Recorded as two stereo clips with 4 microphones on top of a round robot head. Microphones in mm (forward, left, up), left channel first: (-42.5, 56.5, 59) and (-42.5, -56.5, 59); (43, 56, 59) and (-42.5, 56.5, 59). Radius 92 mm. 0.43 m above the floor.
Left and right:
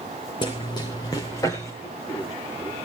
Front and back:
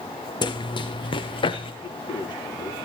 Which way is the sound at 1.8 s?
30° left.